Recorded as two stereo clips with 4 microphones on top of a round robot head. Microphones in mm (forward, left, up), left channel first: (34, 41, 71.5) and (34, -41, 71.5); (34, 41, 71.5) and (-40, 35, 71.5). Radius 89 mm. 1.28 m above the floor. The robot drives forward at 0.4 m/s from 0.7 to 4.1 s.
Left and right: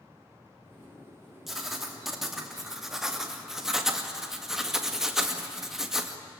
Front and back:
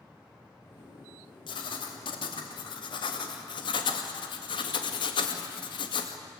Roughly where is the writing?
Ahead.